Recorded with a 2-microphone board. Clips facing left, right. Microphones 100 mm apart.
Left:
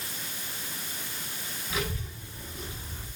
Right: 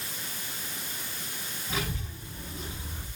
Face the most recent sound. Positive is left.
turn(degrees=-30)  # may be behind; listen again after turning